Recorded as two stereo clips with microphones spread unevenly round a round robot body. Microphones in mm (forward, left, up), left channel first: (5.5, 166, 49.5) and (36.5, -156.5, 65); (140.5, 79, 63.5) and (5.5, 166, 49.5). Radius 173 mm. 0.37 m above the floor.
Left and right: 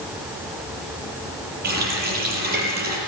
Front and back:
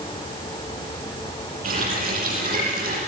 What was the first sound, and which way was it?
A running tap, 150° right.